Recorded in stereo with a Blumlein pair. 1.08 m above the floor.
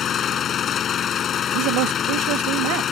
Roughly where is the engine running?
Ahead left.